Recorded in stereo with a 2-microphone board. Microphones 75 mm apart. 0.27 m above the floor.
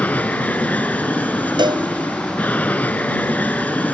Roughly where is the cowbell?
Right.